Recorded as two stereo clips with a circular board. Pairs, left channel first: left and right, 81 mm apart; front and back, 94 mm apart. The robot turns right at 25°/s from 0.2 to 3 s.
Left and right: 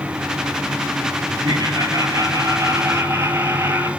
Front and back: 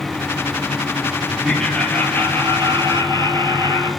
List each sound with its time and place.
1.4 s laughter: 85° right, 2 m; by 3.9 s 45° right, 2 m